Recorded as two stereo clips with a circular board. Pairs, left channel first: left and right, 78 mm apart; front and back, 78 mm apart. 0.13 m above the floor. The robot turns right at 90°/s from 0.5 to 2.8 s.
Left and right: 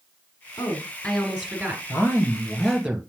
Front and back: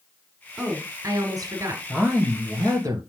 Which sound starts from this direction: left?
A woman speaking, at 0.6 s.